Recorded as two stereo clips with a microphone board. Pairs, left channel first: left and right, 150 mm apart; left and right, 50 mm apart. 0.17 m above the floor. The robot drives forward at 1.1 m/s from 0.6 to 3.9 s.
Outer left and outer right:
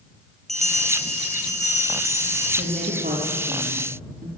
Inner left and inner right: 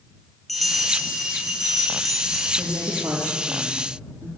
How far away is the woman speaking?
About 5 m.